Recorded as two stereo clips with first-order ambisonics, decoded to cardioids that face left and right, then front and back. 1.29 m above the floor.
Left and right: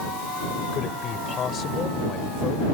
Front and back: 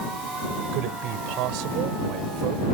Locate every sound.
0.7 s a man speaking: 150° left